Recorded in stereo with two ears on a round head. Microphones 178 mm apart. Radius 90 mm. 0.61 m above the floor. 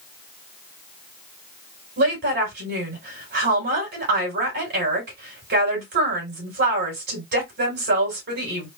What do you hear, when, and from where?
2.0 s a woman speaking: 55° right (ahead or behind), 3 m